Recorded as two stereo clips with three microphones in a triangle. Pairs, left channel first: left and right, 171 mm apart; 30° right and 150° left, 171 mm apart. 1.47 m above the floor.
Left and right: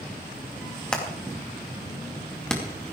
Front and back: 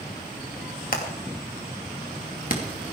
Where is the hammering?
5° left, 2.5 m.